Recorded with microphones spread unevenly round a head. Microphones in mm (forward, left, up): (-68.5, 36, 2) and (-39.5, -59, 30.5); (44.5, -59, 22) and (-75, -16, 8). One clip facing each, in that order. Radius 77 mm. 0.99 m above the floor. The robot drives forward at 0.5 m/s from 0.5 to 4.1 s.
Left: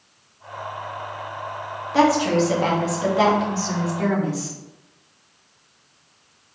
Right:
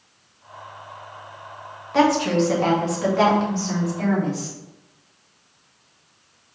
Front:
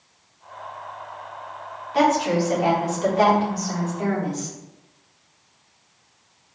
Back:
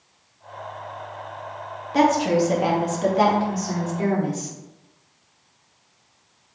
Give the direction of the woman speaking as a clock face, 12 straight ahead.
6 o'clock.